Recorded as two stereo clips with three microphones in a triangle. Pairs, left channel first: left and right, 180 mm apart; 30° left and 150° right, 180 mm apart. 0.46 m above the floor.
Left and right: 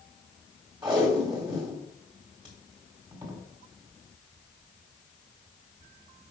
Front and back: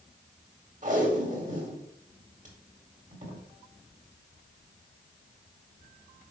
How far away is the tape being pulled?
About 1.8 m.